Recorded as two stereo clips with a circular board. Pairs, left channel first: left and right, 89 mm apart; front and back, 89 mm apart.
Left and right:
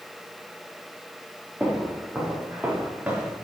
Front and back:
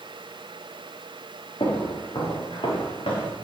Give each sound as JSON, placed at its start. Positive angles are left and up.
{"t": 1.6, "sound": "footsteps", "azimuth_deg": -5, "distance_m": 4.0}